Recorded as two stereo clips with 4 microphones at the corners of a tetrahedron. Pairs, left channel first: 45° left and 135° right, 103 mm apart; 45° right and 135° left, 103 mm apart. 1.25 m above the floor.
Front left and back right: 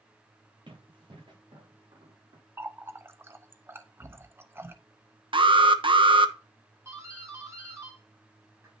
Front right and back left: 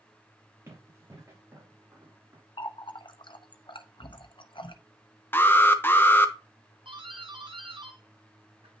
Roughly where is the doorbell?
Behind.